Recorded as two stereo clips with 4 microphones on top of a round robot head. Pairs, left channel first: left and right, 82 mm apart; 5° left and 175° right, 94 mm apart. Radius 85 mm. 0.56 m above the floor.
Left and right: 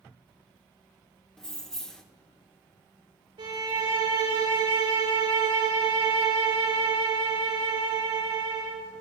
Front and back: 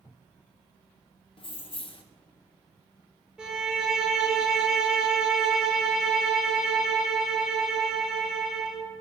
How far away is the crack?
I don't hear a crack.